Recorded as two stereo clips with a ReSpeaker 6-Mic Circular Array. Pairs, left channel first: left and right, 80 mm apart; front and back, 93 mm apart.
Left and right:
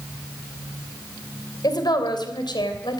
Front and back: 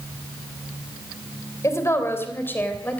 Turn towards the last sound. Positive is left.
turn(degrees=75)